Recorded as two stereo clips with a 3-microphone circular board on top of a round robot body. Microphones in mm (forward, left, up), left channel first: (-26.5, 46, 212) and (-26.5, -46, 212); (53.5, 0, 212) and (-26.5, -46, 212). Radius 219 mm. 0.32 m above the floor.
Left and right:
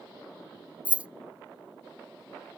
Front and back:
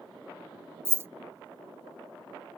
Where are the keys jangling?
145° right, 0.5 m.